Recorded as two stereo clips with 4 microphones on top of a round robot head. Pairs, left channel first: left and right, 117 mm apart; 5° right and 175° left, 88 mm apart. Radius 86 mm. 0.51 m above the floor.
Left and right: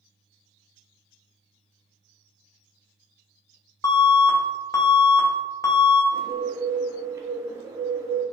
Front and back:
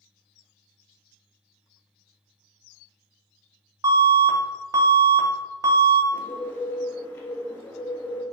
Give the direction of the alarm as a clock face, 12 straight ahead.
7 o'clock.